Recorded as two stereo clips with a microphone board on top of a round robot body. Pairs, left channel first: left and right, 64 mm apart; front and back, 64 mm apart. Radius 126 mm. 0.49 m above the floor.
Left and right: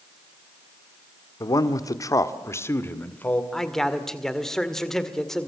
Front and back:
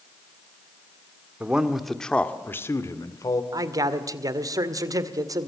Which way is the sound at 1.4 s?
110° left.